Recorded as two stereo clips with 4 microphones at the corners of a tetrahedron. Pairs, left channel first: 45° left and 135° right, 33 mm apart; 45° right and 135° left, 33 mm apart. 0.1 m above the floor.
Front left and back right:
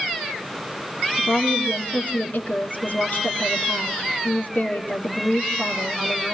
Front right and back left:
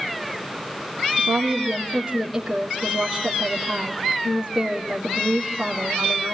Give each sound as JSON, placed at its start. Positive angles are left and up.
{"t": 1.2, "sound": "a woman speaking", "azimuth_deg": 55, "distance_m": 3.5}